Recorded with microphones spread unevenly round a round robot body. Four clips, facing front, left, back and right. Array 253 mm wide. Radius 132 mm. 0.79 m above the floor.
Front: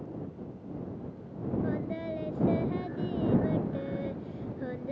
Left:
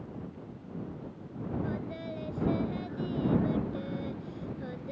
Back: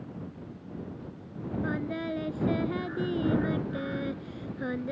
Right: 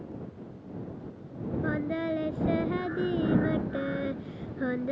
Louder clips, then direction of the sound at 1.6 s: Right 7 dB, back 1 dB; 120° right.